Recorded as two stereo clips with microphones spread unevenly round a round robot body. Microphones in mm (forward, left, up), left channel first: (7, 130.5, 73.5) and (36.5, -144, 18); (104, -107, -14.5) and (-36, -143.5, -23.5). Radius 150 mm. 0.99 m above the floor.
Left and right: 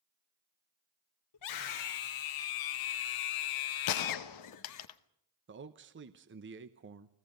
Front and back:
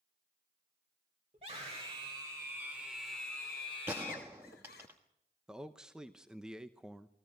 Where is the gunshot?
115° left, 1.0 m.